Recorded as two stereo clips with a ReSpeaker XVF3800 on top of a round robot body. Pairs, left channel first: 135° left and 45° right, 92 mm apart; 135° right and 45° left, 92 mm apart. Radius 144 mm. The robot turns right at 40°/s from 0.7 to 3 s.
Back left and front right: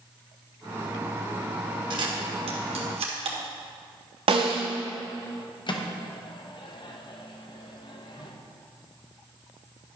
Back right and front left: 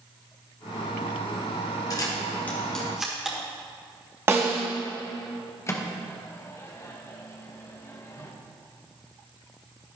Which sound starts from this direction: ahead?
A snare drum, at 4.3 s.